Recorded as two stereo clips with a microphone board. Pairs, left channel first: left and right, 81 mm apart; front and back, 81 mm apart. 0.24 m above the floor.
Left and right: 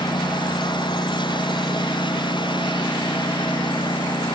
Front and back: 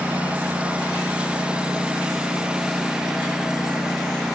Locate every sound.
0.0 s a lawn mower: 105° left; by 4.4 s 95° left